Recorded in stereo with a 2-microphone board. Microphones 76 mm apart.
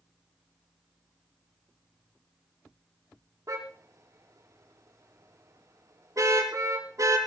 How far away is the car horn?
About 8.5 m.